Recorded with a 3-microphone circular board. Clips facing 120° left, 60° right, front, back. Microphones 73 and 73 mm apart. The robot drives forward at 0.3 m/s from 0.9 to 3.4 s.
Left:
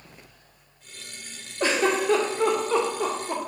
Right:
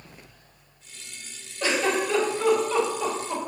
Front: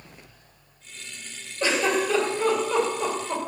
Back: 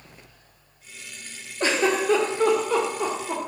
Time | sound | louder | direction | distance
1.6 | a giggle | left 2 dB, back 1 dB | 155° left | 1.6 m